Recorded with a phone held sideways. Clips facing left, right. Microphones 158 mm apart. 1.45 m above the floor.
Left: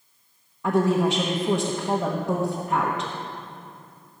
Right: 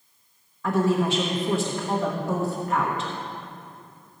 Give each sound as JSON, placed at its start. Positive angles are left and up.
{"t": 0.6, "sound": "a woman speaking", "side_deg": 20, "distance_m": 1.0}